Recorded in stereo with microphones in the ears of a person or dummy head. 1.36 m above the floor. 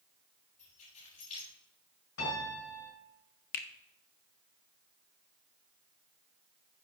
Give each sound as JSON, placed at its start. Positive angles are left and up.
{"t": 0.6, "sound": "keys jangling", "side_deg": 50, "distance_m": 5.5}
{"t": 2.2, "sound": "a piano", "side_deg": 75, "distance_m": 5.5}
{"t": 3.5, "sound": "a finger snap", "side_deg": 45, "distance_m": 0.7}